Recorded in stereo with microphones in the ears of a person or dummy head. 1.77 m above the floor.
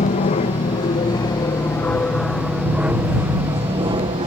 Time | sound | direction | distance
0.0 | an aircraft | 30° left (ahead or behind) | ?